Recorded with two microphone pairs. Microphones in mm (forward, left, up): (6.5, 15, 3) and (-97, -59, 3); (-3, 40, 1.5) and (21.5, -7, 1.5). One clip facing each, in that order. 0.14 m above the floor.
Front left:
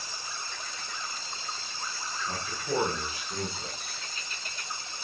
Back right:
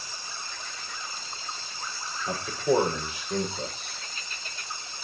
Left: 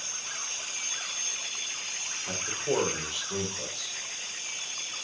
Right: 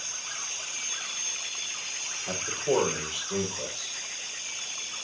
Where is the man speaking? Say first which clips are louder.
Back right 9 dB, right 3 dB; 145° right, 7.5 m.